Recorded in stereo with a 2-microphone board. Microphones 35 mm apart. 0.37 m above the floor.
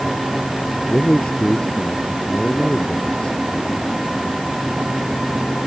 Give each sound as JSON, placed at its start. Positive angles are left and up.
{"t": 0.8, "sound": "a man speaking", "side_deg": 30}